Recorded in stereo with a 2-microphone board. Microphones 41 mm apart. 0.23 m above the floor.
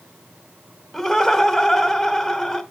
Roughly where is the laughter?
Centre.